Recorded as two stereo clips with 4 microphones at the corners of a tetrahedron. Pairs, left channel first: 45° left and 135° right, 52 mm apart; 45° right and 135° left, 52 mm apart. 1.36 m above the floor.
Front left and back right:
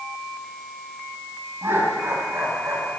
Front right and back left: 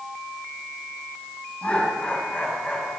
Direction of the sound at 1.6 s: 105° right.